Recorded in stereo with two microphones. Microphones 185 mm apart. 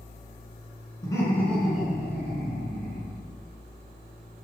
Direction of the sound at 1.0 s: 20° left (ahead or behind).